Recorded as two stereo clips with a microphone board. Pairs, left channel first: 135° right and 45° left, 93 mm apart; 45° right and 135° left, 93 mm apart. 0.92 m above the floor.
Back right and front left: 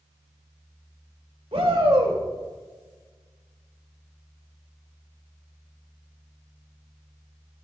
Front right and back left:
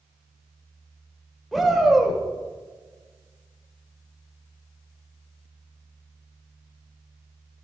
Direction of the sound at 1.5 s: 45° left.